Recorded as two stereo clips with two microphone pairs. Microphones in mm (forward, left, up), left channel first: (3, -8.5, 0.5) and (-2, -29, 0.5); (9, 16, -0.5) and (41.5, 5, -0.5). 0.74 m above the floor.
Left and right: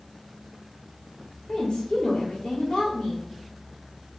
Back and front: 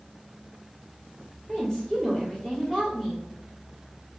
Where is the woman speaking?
85° left, 1.6 m.